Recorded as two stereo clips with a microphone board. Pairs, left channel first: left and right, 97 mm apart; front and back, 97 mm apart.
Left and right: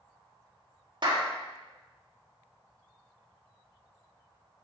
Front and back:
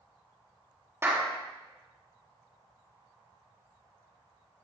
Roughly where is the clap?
Behind right.